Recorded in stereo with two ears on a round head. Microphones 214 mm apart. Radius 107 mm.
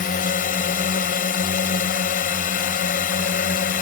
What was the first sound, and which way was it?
A drone, 40° left (ahead or behind).